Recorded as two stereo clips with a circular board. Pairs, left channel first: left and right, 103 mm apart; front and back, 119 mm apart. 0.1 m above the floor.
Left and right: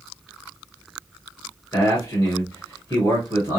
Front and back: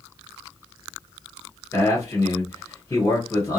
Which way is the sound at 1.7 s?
50° left.